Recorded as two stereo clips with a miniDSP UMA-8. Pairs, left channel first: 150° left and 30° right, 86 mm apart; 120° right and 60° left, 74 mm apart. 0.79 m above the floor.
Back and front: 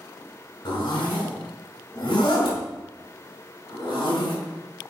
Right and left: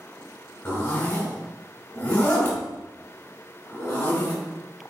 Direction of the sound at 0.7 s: 175° right.